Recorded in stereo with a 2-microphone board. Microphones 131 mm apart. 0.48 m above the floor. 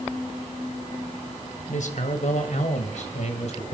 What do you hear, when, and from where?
1.7 s a man speaking: 65° left (ahead or behind), 3 m; by 3.7 s 50° left (ahead or behind), 3 m